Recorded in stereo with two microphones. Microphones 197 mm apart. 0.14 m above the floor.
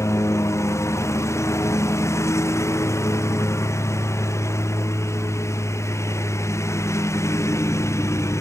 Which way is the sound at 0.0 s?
15° left (ahead or behind).